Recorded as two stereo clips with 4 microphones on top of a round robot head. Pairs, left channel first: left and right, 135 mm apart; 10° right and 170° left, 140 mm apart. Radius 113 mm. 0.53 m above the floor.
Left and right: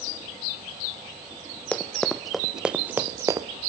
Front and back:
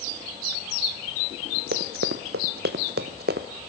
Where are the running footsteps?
170° left, 1.6 m; by 3.5 s 150° right, 1.0 m.